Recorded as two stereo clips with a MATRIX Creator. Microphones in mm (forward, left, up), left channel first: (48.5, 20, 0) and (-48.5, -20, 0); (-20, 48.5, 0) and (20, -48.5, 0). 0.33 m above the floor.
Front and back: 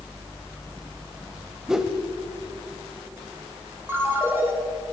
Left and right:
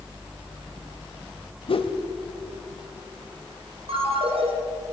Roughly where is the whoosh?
Behind left.